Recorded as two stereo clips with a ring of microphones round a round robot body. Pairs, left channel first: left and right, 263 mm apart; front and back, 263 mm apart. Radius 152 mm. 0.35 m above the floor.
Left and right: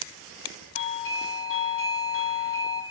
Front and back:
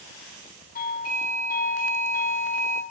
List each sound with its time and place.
0.8 s a doorbell: 55° left, 6 m